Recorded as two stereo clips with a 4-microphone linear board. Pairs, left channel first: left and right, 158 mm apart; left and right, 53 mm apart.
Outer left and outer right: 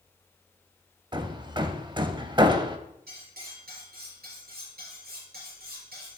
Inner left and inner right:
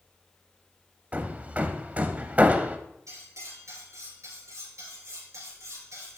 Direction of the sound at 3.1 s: 80° right.